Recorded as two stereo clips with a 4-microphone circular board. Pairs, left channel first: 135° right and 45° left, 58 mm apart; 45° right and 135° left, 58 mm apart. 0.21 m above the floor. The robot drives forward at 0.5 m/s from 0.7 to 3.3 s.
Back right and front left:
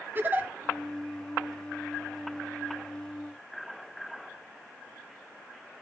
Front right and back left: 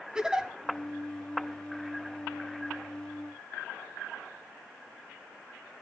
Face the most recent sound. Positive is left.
turn(degrees=140)